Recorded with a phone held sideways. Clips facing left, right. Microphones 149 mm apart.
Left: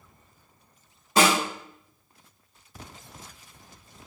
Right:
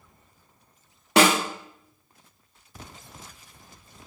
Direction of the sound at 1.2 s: 80° right.